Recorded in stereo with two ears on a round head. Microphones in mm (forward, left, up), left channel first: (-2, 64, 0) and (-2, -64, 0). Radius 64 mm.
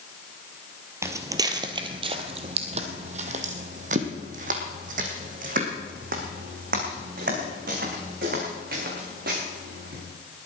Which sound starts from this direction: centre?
Footsteps, at 1.0 s.